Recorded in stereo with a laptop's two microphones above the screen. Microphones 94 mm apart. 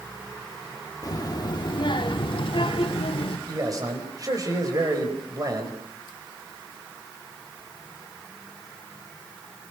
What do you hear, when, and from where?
1.0 s a child speaking: 40° left (ahead or behind), 1.7 m; by 3.4 s 80° left, 2.5 m
3.5 s a man speaking: 40° right (ahead or behind), 4.5 m